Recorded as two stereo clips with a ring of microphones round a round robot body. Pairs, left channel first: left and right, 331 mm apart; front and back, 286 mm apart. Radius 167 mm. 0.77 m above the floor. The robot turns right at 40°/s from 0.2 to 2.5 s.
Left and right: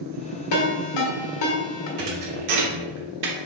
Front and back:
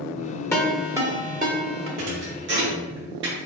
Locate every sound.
0.5 s a ringtone: 80° left, 1.5 m; by 1.9 s 135° left, 1.5 m
2.0 s a thud: 140° right, 1.0 m; by 3.5 s 120° right, 1.0 m